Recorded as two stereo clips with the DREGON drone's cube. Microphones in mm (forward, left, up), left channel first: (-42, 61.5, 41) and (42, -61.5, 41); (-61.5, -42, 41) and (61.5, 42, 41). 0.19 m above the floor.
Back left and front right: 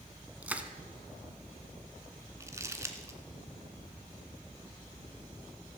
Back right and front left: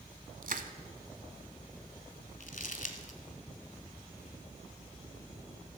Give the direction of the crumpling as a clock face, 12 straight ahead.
4 o'clock.